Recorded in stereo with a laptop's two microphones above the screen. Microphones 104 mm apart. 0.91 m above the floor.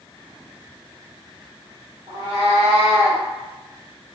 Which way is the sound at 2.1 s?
40° right (ahead or behind).